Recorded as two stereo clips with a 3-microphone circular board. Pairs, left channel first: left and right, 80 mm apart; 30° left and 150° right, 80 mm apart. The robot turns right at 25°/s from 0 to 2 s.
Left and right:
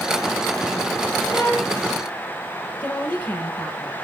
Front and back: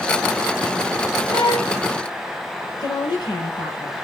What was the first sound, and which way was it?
A violin, 15° left.